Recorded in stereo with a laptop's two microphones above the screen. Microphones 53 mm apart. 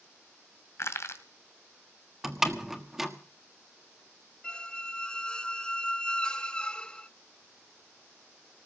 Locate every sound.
0.8 s crushing: 60° left (ahead or behind), 1.9 m
2.2 s a door slam: 5° right (ahead or behind), 1.4 m
4.4 s a squeak: 20° left (ahead or behind), 0.6 m